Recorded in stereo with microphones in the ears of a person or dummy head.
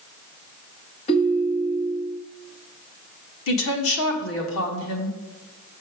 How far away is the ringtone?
About 1.2 m.